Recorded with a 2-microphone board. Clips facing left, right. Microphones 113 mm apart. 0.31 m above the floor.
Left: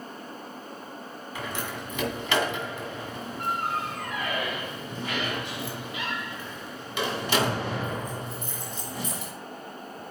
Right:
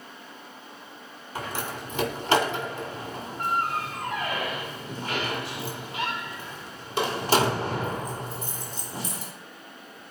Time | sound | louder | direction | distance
1.4 | a door slam | right 2 dB | 40° right (ahead or behind) | 2 m